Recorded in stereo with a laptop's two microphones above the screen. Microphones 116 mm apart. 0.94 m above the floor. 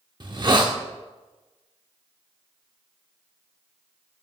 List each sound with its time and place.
0.2 s a hiss: 40° right (ahead or behind), 0.8 m